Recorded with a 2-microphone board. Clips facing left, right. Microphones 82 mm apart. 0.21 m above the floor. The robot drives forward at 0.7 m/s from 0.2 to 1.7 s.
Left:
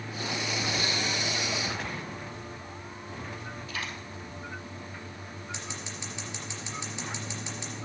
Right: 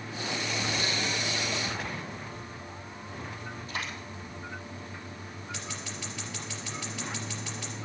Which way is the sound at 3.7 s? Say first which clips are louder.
Right 1 dB; 35° right (ahead or behind).